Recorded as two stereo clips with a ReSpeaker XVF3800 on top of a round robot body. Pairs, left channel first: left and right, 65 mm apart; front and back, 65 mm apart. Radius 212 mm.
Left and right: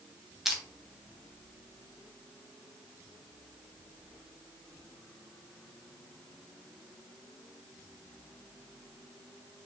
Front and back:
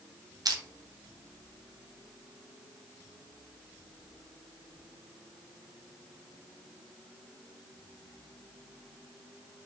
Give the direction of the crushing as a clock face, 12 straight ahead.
6 o'clock.